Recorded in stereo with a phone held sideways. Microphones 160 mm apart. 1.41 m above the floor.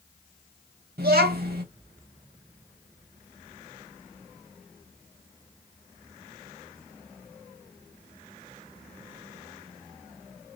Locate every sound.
1.0 s a child speaking: 80° right, 1.5 m